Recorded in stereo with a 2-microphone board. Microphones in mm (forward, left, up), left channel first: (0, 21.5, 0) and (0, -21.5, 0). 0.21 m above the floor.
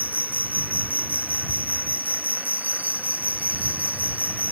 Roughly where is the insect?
Right.